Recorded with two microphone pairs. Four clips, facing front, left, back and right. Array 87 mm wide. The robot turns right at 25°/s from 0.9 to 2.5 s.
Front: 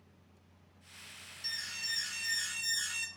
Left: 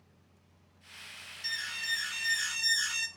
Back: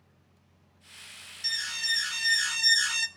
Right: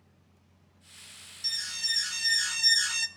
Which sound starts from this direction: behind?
An alarm, at 1.4 s.